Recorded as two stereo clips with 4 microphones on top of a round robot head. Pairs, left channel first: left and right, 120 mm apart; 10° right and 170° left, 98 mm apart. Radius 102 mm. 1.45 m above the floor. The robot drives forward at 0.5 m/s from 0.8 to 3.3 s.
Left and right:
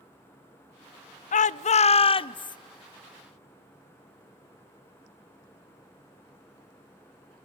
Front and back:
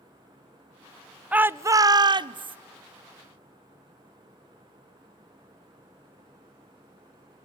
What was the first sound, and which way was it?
A shout, 95° left.